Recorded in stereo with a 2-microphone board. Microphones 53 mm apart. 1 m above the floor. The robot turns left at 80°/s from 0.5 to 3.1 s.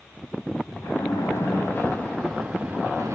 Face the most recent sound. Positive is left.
turn(degrees=-60)